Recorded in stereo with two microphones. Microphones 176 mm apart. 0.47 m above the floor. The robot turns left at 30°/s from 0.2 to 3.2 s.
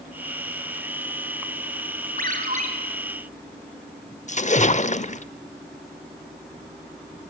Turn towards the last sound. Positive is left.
turn(degrees=45)  # may be behind; listen again after turning